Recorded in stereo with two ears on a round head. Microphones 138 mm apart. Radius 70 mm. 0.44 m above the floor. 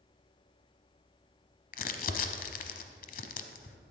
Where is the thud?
I don't hear a thud.